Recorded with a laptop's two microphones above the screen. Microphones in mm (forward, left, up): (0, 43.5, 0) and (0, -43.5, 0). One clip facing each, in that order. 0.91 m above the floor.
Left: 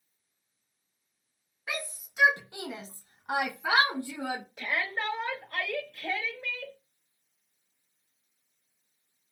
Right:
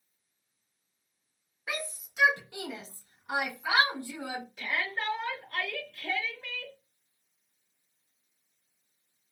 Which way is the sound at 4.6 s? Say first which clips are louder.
Even; 45° left (ahead or behind).